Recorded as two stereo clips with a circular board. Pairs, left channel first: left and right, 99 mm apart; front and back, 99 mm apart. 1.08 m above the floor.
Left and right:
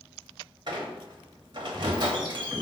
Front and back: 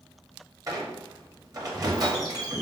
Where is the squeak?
130° right, 1.0 m.